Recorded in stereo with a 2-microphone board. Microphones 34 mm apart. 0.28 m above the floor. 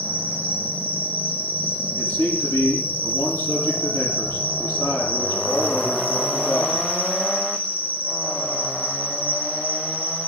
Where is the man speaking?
80° left, 9 m.